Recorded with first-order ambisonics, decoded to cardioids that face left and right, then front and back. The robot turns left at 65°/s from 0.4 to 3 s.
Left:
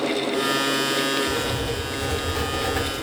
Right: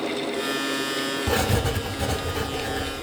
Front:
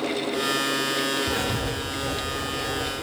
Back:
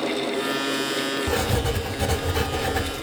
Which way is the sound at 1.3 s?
110° right.